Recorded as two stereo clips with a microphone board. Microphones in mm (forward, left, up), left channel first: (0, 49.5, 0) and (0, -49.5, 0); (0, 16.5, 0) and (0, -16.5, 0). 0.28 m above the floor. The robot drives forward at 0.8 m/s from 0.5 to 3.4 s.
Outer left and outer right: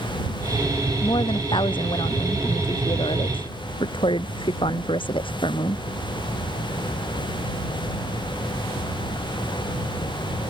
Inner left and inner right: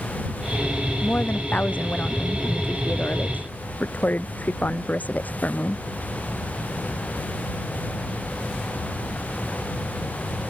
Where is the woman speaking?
50° left (ahead or behind); by 5.8 s 55° left (ahead or behind).